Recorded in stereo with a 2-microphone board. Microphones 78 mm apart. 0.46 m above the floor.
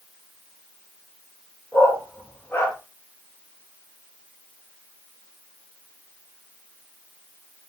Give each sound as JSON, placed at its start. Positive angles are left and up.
{"t": 1.7, "sound": "a dog barking", "side_deg": 20, "distance_m": 4.5}